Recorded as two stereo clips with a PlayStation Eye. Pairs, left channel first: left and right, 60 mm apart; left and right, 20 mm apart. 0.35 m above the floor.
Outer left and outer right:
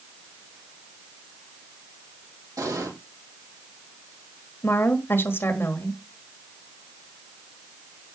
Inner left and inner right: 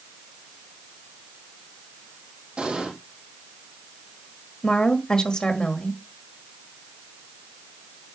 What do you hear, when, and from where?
2.6 s an explosion: 75° right (ahead or behind), 4.5 m
4.6 s a woman speaking: 40° left (ahead or behind), 1.3 m